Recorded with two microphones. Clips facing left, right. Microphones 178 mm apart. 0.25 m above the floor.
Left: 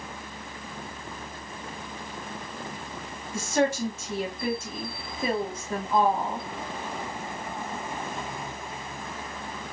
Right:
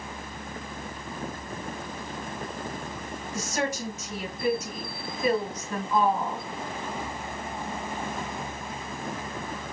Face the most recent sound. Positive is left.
turn(degrees=25)  # may be behind; listen again after turning